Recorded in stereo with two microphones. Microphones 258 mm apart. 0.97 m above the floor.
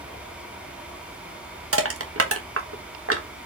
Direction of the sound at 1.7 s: 60° right (ahead or behind).